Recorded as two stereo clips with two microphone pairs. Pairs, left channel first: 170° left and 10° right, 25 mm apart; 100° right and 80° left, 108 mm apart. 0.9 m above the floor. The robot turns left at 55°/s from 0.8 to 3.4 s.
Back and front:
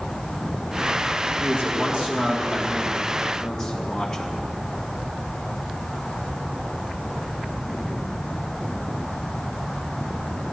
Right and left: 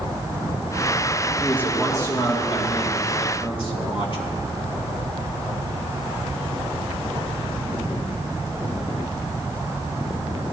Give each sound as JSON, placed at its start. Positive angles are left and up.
{"t": 1.4, "sound": "a man speaking", "azimuth_deg": -20, "distance_m": 2.0}